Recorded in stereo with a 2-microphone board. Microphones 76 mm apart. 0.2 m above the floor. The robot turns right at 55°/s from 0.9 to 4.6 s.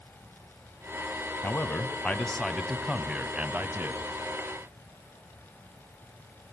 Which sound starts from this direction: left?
A man speaking, at 1.4 s.